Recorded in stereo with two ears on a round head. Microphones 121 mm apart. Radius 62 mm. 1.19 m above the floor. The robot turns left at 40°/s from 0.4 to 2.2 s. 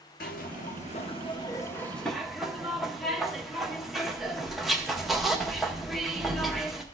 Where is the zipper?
70° left, 0.8 m; by 6.8 s straight ahead, 0.8 m.